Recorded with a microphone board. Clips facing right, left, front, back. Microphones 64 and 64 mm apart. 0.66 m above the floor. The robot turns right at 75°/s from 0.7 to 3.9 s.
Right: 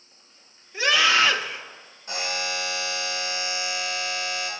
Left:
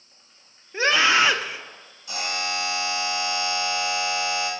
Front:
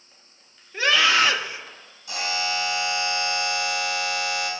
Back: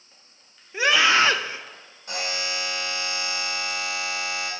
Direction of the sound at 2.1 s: 135° right.